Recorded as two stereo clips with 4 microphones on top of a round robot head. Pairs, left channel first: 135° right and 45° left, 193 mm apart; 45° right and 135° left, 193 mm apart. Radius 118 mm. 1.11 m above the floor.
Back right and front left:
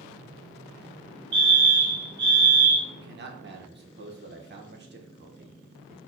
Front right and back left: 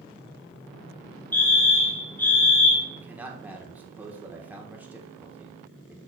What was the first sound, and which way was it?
A fire alarm, 35° left.